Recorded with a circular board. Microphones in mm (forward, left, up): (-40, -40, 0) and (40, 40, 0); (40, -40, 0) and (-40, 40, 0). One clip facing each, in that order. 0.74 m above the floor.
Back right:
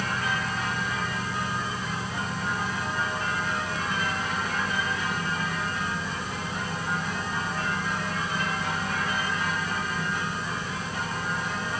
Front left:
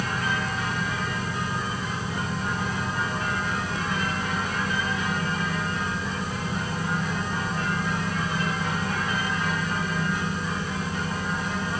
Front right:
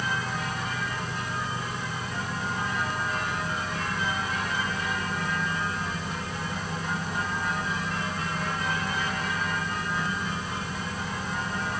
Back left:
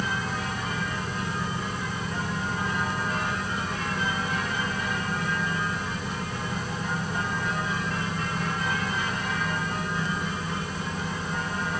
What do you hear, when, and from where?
Only background noise.